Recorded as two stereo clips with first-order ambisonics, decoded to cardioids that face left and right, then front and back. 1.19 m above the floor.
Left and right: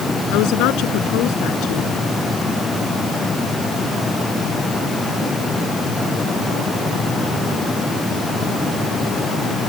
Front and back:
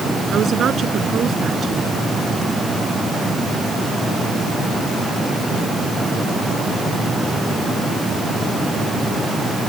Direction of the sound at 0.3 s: 120° left.